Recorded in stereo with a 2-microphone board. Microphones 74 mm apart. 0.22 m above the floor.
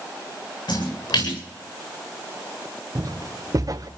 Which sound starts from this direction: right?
Footsteps, at 3.0 s.